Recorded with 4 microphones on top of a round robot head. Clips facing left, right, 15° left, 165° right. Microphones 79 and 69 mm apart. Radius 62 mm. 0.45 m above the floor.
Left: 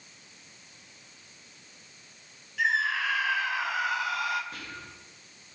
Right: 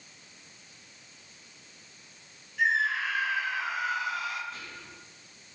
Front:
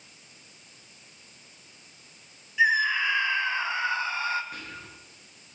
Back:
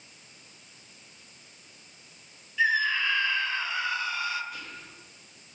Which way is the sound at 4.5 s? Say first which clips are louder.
Left 2 dB, front 1 dB; 60° left.